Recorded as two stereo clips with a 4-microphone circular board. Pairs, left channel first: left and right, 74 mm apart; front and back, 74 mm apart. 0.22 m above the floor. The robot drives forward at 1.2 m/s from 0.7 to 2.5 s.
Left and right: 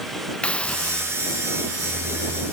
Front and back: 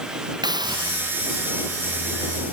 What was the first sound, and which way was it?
A hiss, 165° left.